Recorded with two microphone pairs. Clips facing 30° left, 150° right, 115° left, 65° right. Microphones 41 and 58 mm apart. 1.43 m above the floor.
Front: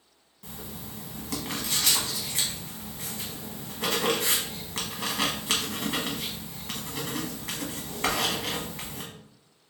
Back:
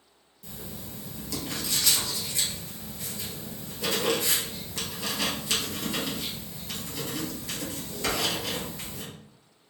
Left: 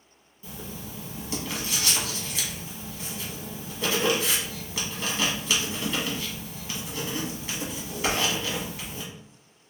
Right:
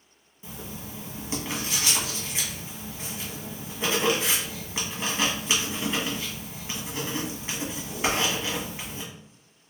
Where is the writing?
5° right, 1.0 m.